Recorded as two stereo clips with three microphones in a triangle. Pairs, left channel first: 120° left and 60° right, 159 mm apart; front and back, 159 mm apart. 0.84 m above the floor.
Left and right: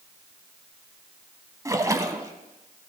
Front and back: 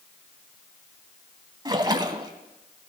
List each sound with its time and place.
1.6 s a splash: 120° right, 1.0 m